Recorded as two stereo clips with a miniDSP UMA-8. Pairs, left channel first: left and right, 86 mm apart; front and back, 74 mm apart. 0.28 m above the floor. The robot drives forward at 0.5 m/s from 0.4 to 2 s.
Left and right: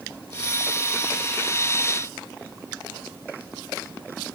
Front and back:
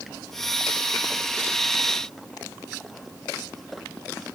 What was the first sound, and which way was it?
Only background noise.